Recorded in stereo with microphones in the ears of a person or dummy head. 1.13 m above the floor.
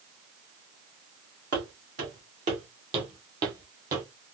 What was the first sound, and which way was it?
Footsteps, 45° right (ahead or behind).